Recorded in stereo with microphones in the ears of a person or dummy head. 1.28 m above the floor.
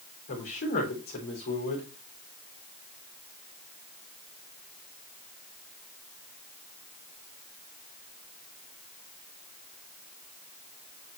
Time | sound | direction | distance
0.3 | a man speaking | 50° left (ahead or behind) | 3.5 m